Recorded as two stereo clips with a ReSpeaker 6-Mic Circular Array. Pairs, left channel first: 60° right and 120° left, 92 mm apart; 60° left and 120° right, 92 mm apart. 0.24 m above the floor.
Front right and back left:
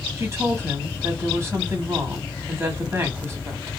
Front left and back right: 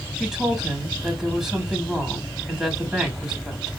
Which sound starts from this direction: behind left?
A woman speaking, at 0.2 s.